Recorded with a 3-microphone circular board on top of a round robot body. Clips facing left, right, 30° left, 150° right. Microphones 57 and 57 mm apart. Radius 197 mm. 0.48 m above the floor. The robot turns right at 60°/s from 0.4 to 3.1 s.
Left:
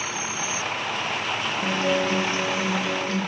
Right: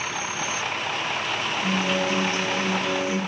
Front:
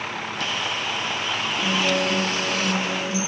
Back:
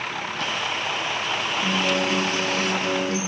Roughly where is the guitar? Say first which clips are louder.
Left 2 dB, front 1 dB; left.